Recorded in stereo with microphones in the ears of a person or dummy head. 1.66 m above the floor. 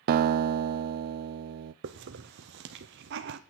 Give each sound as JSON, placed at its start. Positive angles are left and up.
{"t": 0.1, "sound": "a guitar", "side_deg": -55, "distance_m": 0.6}
{"t": 1.8, "sound": "a hiss", "side_deg": -60, "distance_m": 1.0}